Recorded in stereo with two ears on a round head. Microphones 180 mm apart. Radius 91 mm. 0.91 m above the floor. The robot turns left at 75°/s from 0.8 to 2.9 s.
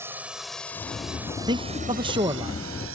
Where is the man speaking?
20° right (ahead or behind); by 2.5 s 15° right (ahead or behind).